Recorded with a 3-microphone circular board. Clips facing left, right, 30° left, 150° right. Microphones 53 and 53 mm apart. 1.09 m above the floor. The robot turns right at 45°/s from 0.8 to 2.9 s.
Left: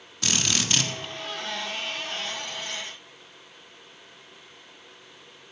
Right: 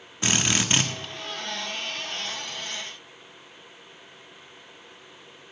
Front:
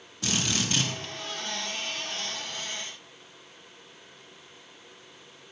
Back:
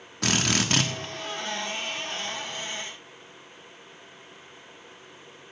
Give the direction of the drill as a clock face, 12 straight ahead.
5 o'clock.